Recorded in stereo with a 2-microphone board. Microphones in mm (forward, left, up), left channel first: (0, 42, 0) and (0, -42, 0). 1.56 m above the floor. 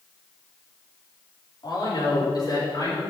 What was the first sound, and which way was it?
A man speaking, 55° left (ahead or behind).